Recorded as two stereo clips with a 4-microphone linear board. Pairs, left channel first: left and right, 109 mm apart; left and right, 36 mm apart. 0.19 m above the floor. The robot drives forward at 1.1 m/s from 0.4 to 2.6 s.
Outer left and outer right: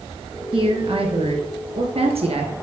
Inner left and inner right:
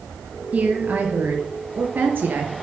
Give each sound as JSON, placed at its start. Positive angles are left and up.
{"t": 0.5, "sound": "a woman speaking", "side_deg": -50, "distance_m": 3.5}